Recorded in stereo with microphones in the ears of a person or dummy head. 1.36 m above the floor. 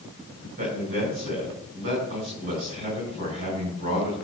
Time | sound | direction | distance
0.6 | a man speaking | 40° right (ahead or behind) | 7 m